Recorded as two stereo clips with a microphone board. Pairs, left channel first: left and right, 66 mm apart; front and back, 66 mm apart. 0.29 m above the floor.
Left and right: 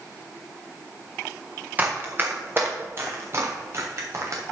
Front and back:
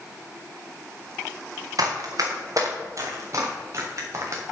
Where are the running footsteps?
155° right, 3.5 m; by 4.4 s 135° right, 5 m.